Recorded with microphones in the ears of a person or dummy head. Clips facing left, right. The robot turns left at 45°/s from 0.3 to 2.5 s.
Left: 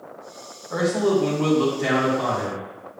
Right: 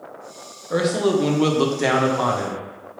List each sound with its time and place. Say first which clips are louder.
0.7 s a man speaking: right 1 dB; 40° right, 1.0 m; by 2.7 s 120° right, 1.0 m